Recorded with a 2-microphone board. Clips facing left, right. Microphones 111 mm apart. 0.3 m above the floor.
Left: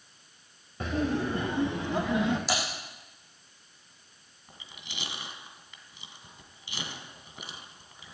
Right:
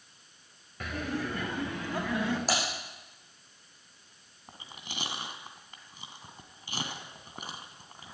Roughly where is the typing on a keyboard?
Right.